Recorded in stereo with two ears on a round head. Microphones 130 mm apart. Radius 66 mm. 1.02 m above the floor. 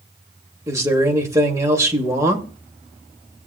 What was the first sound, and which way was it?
A man speaking, 20° right (ahead or behind).